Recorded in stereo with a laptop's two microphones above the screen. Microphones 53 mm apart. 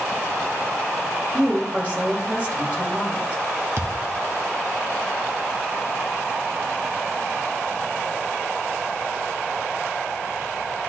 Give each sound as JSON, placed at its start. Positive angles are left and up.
{"t": 1.3, "sound": "a woman speaking", "side_deg": -25, "distance_m": 2.5}
{"t": 3.8, "sound": "a thud", "side_deg": -50, "distance_m": 0.7}